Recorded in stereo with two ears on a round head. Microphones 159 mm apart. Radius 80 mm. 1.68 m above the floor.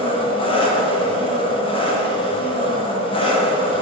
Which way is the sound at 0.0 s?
30° left (ahead or behind).